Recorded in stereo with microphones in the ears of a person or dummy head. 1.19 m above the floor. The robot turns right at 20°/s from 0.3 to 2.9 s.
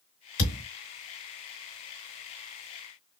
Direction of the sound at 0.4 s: 35° left (ahead or behind).